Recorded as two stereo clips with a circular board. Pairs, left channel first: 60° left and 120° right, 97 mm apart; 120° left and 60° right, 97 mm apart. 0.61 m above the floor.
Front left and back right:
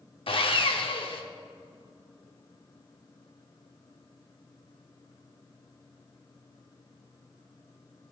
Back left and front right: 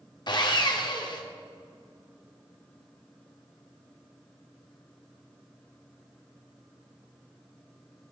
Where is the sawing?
80° left, 0.6 m.